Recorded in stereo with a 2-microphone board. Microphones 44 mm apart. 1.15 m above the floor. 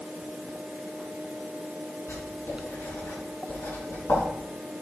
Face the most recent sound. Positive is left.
turn(degrees=75)  # may be behind; listen again after turning